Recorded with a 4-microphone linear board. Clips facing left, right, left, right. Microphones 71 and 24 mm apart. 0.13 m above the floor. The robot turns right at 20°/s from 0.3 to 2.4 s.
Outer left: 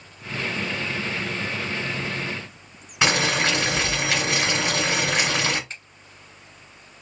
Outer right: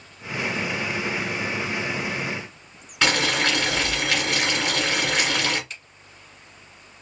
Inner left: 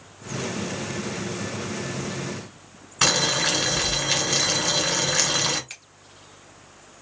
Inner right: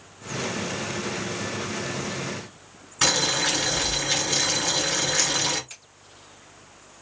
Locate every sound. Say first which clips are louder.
3.0 s boiling: outer left 1 dB, inner left 1 dB; 15° left (ahead or behind), 2.0 m
5.7 s a finger snap: outer left 1 dB, inner left 4 dB; 35° left (ahead or behind), 1.7 m